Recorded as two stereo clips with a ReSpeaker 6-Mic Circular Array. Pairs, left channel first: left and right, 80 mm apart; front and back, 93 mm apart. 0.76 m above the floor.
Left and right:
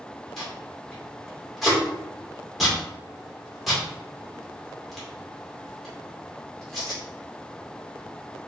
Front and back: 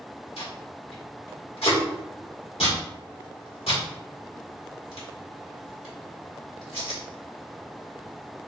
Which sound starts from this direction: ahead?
Tape being pulled, at 0.4 s.